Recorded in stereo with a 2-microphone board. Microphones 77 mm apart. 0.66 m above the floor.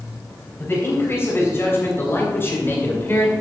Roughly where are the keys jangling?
No keys jangling in this recording.